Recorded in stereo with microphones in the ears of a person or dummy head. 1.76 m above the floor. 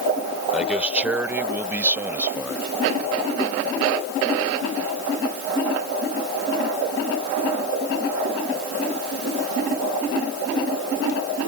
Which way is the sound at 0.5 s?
5° right (ahead or behind).